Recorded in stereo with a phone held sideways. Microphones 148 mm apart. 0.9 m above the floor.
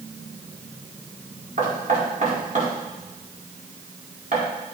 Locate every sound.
1.6 s knocking: 55° right (ahead or behind), 2.5 m